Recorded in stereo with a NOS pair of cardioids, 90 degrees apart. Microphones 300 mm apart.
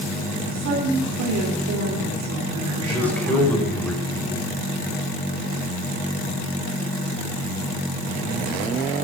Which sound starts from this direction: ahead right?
A woman speaking, at 0.5 s.